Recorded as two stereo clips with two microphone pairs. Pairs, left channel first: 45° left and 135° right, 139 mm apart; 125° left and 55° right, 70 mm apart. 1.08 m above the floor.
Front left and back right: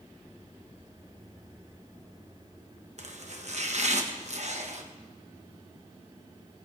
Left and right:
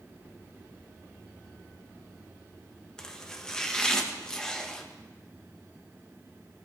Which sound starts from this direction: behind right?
Chopping, at 3.0 s.